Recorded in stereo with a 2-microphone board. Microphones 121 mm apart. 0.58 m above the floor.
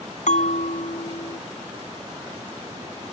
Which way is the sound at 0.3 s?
75° left (ahead or behind).